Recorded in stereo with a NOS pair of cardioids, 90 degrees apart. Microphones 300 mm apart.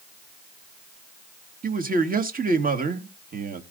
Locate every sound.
1.6 s a man speaking: 30° right, 2 m